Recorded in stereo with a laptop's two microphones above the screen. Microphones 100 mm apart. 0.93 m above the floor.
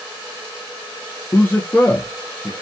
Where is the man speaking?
20° left (ahead or behind), 0.7 m.